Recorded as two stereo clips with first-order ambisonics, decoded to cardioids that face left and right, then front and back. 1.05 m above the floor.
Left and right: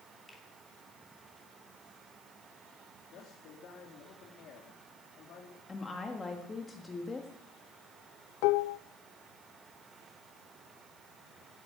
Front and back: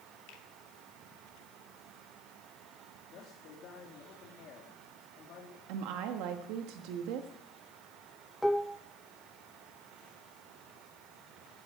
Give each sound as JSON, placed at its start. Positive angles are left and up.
{"t": 0.3, "sound": "a finger snap", "azimuth_deg": 15, "distance_m": 2.5}
{"t": 3.1, "sound": "a man speaking", "azimuth_deg": 45, "distance_m": 2.5}
{"t": 5.7, "sound": "a woman speaking", "azimuth_deg": 165, "distance_m": 1.6}
{"t": 8.4, "sound": "dishes clattering", "azimuth_deg": 90, "distance_m": 0.5}